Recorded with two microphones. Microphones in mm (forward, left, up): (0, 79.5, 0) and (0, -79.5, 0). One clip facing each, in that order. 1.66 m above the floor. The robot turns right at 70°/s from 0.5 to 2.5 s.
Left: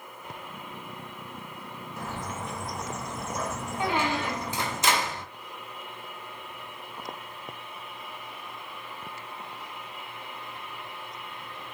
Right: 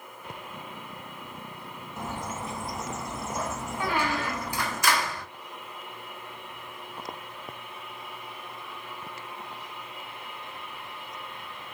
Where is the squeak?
25° left (ahead or behind), 0.6 m.